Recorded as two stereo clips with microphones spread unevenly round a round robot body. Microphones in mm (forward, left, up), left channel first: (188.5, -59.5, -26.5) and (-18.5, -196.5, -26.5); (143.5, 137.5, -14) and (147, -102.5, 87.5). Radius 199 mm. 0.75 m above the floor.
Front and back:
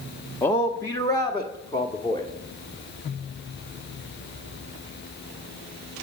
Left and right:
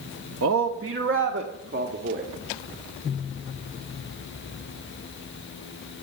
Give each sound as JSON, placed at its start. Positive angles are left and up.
{"t": 0.4, "sound": "a man speaking", "azimuth_deg": -50, "distance_m": 0.9}